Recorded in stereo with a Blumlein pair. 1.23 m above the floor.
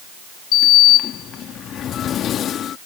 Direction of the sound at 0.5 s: 30° left.